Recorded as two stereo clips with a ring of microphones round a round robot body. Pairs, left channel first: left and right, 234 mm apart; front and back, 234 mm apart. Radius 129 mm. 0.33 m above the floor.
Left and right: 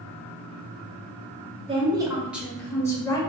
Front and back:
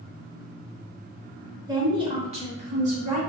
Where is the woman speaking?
125° right, 1.0 m; by 3.2 s 150° left, 1.1 m.